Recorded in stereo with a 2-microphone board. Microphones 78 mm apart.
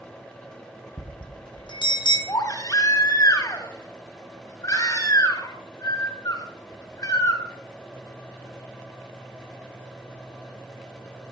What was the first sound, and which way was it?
A bell, 80° left.